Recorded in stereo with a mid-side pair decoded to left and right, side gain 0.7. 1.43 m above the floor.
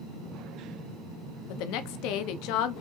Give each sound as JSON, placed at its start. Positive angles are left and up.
{"t": 1.5, "sound": "a woman speaking", "azimuth_deg": 65, "distance_m": 0.7}